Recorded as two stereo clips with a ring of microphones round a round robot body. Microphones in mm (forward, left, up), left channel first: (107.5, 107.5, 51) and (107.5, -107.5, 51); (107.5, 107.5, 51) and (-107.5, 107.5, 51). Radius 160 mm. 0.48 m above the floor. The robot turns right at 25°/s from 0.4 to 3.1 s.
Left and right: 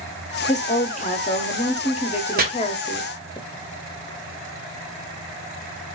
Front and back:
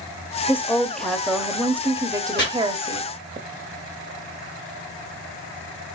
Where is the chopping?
45° right, 1.6 m; by 2.4 s 40° right, 1.6 m.